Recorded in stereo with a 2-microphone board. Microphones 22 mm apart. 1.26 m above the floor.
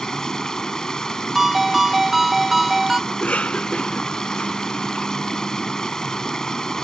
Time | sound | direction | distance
0.0 | running water | 30° left (ahead or behind) | ?
1.4 | a ringtone | 10° right (ahead or behind) | ?
3.1 | a cough | 80° left | ?